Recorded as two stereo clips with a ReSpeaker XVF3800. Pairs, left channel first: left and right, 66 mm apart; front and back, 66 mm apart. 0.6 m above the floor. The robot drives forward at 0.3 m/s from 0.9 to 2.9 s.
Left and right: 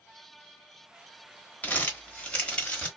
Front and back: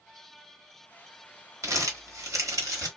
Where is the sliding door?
No sliding door in this recording.